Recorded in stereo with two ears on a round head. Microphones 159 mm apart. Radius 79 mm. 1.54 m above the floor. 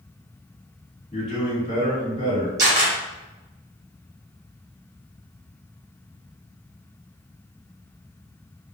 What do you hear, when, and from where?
1.1 s a man speaking: 40° left (ahead or behind), 1.5 m
2.6 s a camera shutter: 20° right (ahead or behind), 1.1 m